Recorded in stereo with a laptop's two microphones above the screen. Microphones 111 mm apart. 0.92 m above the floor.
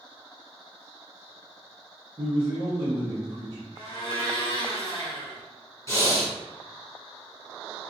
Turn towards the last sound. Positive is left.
turn(degrees=30)  # may be behind; listen again after turning